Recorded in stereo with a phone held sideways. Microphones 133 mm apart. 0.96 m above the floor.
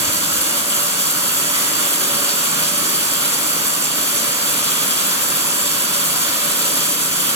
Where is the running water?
25° right (ahead or behind), 2.5 m.